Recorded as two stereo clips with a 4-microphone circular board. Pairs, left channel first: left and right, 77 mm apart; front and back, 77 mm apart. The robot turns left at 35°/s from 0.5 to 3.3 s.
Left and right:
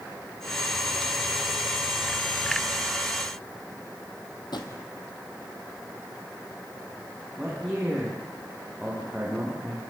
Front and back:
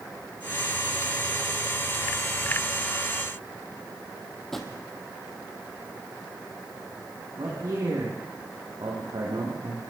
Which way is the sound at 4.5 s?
85° left.